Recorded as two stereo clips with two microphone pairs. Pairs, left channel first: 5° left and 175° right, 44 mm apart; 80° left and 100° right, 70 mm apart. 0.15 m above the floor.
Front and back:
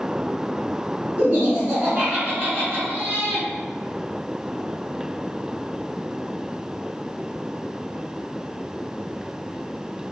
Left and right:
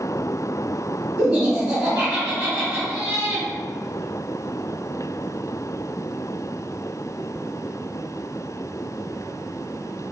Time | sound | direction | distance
1.2 | laughter | 175° right | 1.6 m